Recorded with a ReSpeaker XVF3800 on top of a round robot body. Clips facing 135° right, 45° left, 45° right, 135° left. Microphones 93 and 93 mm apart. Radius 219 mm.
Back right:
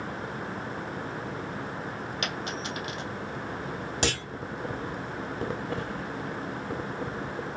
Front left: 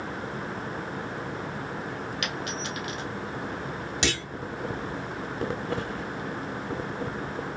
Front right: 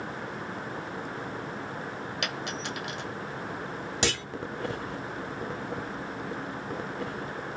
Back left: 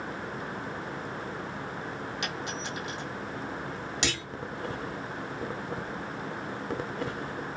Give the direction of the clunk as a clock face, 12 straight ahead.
3 o'clock.